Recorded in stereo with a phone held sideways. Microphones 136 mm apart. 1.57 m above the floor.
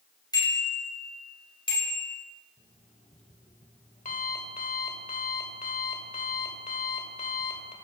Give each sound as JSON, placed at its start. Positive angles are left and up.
{"t": 0.3, "sound": "a bicycle bell", "side_deg": 30, "distance_m": 6.0}
{"t": 2.6, "sound": "an alarm clock", "side_deg": 65, "distance_m": 2.5}